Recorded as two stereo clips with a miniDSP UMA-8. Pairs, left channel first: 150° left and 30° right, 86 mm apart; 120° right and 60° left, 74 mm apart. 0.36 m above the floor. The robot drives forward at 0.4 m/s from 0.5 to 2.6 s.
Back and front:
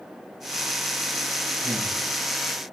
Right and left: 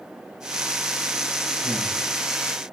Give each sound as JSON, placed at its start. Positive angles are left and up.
{"t": 1.6, "sound": "breathing", "azimuth_deg": -175, "distance_m": 8.0}